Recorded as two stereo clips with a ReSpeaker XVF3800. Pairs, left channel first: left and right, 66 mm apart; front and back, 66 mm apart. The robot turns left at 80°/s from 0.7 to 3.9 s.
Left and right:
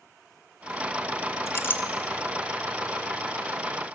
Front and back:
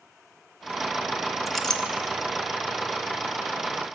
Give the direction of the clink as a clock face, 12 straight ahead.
9 o'clock.